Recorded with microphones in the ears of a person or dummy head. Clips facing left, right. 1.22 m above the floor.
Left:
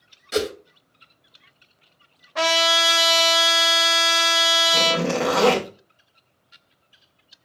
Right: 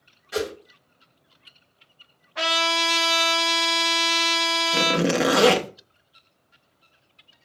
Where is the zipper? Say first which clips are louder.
Right 2 dB; 20° right (ahead or behind), 0.6 m.